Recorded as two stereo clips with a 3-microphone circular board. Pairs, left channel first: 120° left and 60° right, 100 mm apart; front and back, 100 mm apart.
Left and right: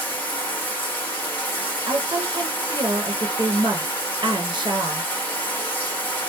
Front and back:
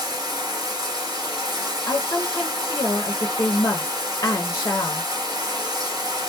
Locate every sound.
0.0 s running water: straight behind, 1.1 m
1.9 s a woman speaking: 40° right, 0.7 m